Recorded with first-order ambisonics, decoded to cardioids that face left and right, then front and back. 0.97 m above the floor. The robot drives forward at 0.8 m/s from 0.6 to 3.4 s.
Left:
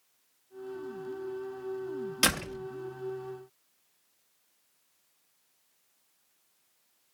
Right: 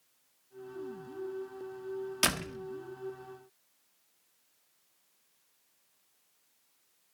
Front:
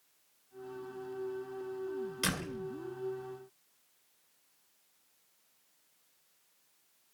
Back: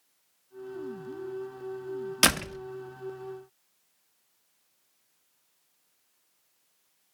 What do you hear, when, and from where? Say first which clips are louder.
2.2 s a door slam: left 3 dB, back 13 dB; 175° left, 1.1 m; by 2.6 s straight behind, 1.3 m